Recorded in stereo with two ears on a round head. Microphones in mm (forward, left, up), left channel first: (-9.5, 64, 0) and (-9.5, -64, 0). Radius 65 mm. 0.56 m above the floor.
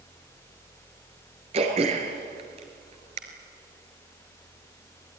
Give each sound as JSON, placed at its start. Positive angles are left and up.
{"t": 1.5, "sound": "throat clearing", "side_deg": -45, "distance_m": 3.5}